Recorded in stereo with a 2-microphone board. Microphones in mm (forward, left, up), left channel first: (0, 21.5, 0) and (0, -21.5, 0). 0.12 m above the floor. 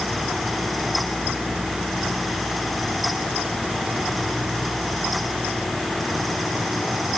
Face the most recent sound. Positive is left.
No sound to turn to.